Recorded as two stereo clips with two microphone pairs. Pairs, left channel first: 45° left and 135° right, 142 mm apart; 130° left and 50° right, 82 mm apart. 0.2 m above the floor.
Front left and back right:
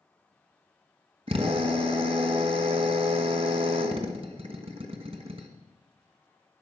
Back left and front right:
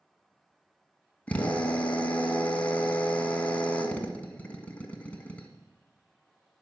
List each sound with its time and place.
1.3 s a drill: 160° right, 1.5 m